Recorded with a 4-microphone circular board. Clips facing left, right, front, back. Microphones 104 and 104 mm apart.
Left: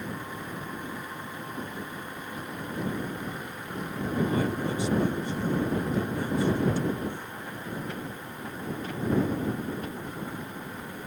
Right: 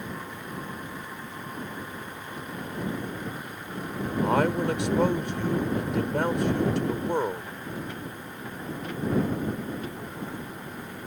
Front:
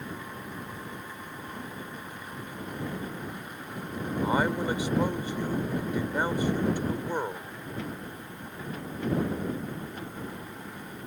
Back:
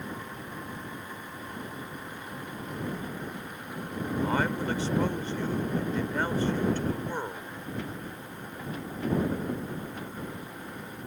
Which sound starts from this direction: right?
A man speaking, at 4.2 s.